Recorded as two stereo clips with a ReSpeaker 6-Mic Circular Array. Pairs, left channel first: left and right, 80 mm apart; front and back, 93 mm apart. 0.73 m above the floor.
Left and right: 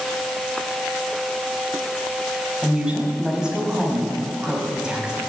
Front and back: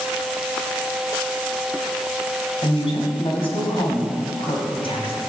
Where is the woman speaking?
10° right, 4 m.